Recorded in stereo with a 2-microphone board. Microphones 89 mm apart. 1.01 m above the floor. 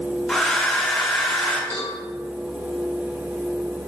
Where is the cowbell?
25° left (ahead or behind), 1.0 m.